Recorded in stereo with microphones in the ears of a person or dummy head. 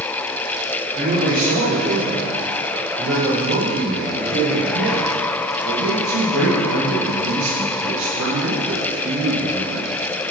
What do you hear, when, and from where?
0.9 s a man speaking: 45° right (ahead or behind), 4 m; by 9.9 s 85° right, 8 m